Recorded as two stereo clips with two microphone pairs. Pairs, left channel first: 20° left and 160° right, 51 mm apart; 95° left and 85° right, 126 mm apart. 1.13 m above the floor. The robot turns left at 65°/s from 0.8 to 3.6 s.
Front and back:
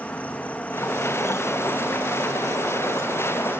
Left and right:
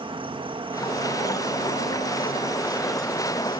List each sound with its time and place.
0.0 s an insect: 40° right, 1.4 m; by 3.6 s 140° left, 1.4 m